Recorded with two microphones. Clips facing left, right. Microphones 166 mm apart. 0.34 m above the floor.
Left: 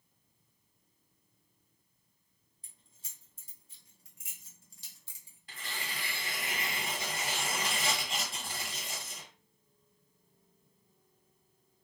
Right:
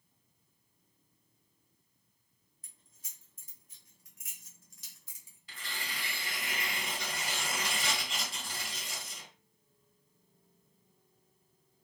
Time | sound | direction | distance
2.6 | keys jangling | 30° left (ahead or behind) | 0.7 m
5.5 | tearing paper | 50° left (ahead or behind) | 1.6 m